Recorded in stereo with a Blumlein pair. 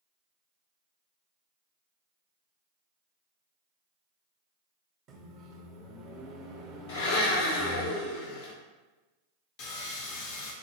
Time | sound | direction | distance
5.1 | a microwave | 25° right | 0.8 m
6.9 | a blender | 55° left | 0.8 m
9.6 | sawing | 40° left | 0.8 m